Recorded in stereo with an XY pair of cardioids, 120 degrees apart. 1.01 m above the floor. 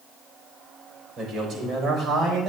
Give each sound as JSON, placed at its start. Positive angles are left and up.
{"t": 1.2, "sound": "a man speaking", "azimuth_deg": -55, "distance_m": 3.5}